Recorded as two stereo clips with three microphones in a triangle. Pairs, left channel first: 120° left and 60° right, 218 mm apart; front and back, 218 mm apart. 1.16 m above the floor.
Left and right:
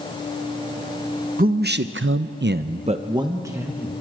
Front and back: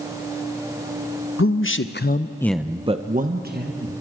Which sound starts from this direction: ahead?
A man speaking, at 1.4 s.